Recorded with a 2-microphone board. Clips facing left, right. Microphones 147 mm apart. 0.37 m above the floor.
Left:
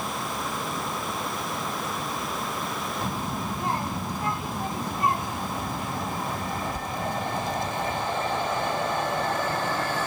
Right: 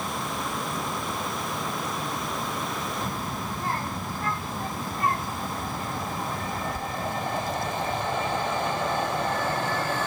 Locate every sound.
3.0 s a child speaking: 20° left (ahead or behind)